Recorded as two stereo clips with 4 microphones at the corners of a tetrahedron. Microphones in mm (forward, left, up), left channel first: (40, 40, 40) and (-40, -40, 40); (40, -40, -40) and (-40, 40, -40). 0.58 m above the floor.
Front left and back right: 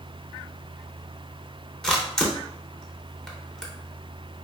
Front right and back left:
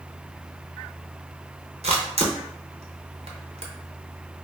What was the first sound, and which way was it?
A camera shutter, 130° left.